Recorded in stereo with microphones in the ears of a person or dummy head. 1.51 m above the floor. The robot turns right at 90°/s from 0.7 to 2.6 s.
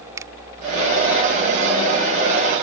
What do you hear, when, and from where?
0.2 s a finger snap: 20° right (ahead or behind)